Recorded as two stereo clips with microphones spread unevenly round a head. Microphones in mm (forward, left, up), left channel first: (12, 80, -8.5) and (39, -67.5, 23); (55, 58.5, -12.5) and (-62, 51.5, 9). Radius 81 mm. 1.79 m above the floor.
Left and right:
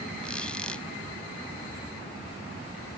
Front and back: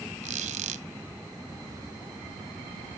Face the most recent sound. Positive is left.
turn(degrees=-170)